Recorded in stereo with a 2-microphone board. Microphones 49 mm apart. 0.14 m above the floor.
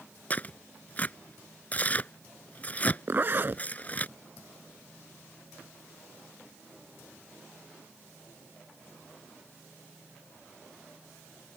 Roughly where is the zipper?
Right.